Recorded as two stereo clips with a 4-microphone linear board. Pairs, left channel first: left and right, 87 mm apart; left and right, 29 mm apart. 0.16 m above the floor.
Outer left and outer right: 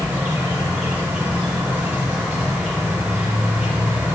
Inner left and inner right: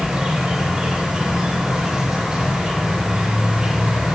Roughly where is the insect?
Right.